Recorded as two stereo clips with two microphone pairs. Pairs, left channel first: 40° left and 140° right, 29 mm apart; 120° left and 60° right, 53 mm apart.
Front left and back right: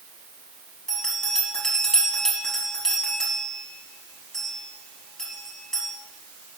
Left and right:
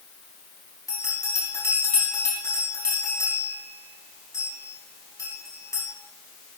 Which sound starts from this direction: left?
A bell, at 0.9 s.